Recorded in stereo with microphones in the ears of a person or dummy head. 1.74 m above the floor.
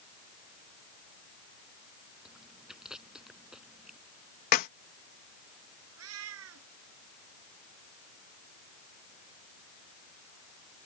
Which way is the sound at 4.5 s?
50° left (ahead or behind).